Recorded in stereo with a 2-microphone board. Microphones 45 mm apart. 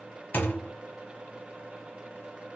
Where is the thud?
45° left (ahead or behind), 0.7 m.